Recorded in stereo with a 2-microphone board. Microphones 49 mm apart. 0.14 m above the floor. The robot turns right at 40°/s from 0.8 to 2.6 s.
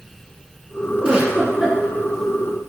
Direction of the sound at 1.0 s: 35° right.